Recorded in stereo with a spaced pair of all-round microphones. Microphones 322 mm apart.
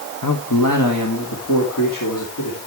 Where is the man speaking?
80° left, 1.1 m.